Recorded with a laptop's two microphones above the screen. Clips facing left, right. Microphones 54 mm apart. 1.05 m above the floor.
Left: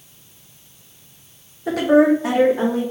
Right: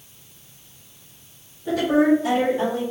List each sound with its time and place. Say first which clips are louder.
1.7 s a woman speaking: left 4 dB; 75° left (ahead or behind), 1.2 m; by 2.8 s 80° left, 2.5 m